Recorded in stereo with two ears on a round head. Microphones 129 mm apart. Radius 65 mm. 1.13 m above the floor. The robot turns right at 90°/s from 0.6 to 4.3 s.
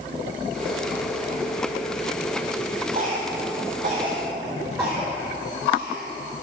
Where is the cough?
45° right (ahead or behind), 4.5 m; by 6.1 s 10° right (ahead or behind), 4.5 m.